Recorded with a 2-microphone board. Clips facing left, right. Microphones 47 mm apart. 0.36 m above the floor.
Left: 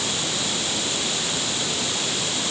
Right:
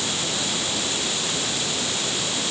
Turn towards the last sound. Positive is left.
No sound to turn to.